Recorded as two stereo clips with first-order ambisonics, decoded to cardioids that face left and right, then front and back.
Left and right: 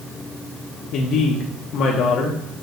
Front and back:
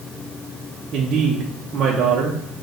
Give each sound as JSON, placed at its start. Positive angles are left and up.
{"t": 0.9, "sound": "a woman speaking", "azimuth_deg": 125, "distance_m": 0.6}